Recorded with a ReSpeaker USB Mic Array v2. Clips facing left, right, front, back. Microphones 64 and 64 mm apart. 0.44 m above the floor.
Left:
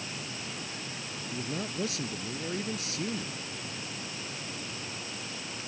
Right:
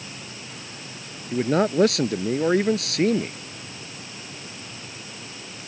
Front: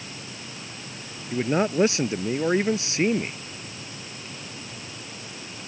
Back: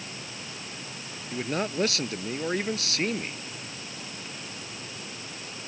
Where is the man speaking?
70° right.